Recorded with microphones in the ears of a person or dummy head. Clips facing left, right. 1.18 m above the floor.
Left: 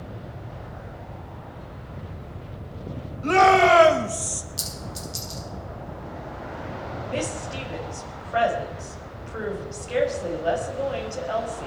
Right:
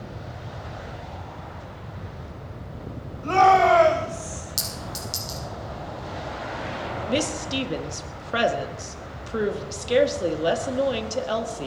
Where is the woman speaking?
50° right (ahead or behind), 1.7 m.